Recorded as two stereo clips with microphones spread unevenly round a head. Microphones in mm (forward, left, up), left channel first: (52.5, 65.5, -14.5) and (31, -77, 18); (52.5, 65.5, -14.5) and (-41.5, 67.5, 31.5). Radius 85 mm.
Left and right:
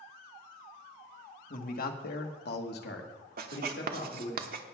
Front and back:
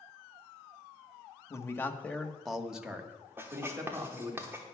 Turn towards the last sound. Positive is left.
turn(degrees=-90)